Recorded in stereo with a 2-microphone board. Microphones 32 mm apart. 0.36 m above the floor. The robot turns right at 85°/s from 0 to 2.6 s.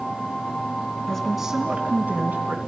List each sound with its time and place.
1.1 s a woman speaking: 160° left, 2.5 m; by 2.6 s 75° right, 2.5 m